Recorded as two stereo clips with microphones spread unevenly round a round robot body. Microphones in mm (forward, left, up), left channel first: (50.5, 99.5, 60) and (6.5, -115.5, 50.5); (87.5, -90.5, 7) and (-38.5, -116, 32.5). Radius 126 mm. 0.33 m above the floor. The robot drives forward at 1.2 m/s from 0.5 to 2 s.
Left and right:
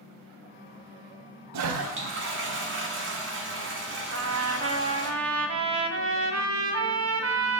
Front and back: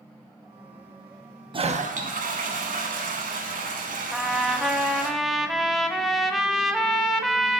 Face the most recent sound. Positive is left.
turn(degrees=-75)